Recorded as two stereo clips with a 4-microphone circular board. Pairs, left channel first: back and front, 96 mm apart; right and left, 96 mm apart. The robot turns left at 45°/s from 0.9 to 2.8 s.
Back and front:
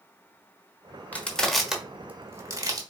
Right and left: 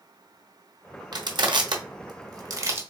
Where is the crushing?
110° left, 1.0 m; by 2.8 s 35° left, 1.0 m.